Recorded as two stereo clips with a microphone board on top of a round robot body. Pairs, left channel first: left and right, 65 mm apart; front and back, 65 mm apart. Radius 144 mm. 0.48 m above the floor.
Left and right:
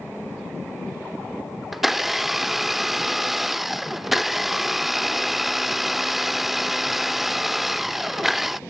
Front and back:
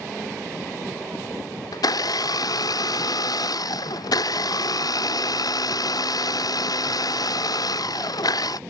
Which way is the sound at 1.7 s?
5° right.